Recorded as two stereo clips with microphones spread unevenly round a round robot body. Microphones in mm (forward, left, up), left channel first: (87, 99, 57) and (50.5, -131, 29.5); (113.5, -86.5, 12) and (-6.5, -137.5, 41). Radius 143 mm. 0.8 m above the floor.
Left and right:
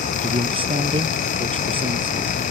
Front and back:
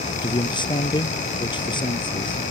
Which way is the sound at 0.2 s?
30° right.